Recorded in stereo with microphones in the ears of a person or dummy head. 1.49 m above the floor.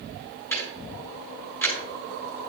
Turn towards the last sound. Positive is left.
turn(degrees=15)  # may be behind; listen again after turning